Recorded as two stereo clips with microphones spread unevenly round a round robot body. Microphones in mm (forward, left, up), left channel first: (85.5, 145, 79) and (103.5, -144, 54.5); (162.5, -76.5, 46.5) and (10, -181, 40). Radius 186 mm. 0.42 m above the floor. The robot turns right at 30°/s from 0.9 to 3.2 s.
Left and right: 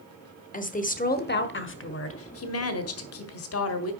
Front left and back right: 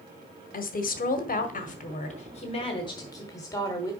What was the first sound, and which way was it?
A woman speaking, 35° left.